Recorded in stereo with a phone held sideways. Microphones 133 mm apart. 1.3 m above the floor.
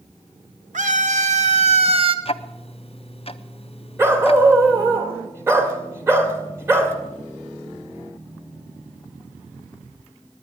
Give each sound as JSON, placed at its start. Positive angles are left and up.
{"t": 0.7, "sound": "a scream", "side_deg": -70, "distance_m": 2.0}
{"t": 2.2, "sound": "ticking", "side_deg": 45, "distance_m": 0.5}
{"t": 4.0, "sound": "a dog barking", "side_deg": -20, "distance_m": 1.7}